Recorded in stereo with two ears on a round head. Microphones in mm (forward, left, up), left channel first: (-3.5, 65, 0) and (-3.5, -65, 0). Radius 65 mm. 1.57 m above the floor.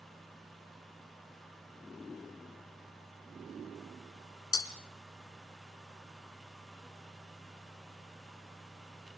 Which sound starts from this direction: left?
Breaking glass, at 4.5 s.